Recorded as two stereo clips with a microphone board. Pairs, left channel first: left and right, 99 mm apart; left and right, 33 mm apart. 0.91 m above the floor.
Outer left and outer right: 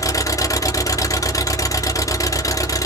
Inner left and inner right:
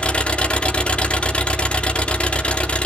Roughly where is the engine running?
Left.